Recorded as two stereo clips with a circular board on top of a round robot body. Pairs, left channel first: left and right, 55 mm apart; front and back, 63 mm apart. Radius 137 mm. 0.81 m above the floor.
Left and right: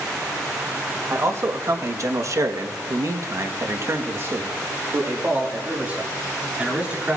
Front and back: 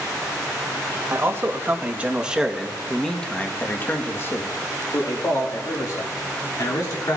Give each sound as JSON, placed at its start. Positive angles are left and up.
{"t": 1.1, "sound": "a man speaking", "azimuth_deg": -130, "distance_m": 1.4}